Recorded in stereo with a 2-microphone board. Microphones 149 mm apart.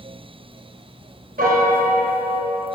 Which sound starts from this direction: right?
A piano, at 1.4 s.